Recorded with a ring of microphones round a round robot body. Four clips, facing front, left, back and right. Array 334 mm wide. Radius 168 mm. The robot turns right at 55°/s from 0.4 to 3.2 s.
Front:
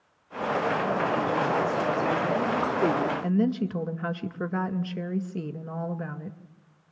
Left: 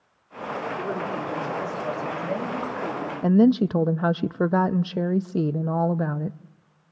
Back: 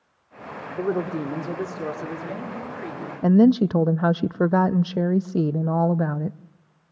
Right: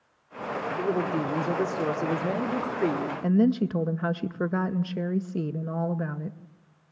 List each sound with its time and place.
0.8 s a woman speaking: 170° right, 2.5 m; by 3.1 s 40° right, 2.5 m
3.2 s a woman speaking: 150° left, 0.5 m